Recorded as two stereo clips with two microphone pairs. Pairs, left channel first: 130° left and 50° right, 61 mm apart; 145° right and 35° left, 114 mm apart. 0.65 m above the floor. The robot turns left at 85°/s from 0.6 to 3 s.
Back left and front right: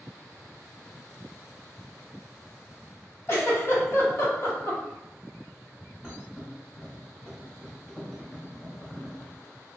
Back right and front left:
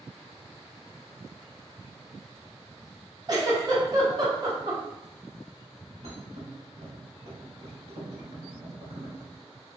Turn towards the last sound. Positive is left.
turn(degrees=50)